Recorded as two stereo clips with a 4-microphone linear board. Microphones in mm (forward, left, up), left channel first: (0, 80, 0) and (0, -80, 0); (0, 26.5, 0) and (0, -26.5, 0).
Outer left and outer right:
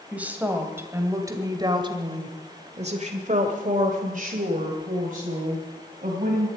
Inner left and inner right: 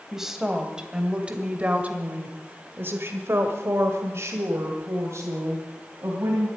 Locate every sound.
0.1 s a woman speaking: 5° right (ahead or behind), 2.5 m; by 6.5 s 50° right (ahead or behind), 3 m